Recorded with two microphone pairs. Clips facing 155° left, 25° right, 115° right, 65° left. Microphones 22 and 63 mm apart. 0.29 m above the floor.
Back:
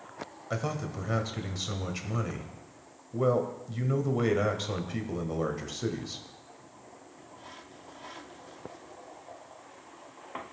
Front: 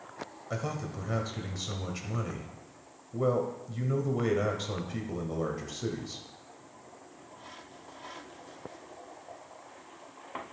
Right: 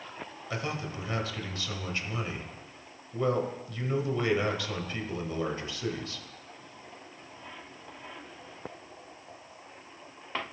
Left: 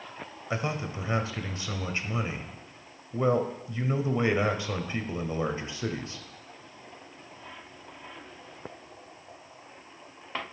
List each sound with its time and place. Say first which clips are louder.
0.5 s a man speaking: back 2 dB, left 3 dB; 95° left, 1.1 m